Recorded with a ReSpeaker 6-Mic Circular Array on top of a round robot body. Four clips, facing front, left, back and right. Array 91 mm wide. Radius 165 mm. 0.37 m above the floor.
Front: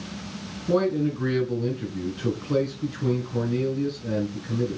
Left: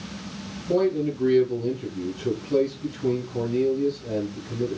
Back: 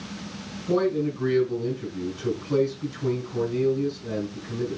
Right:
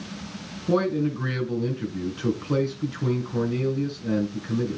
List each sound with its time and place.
0.7 s a man speaking: 75° right, 5 m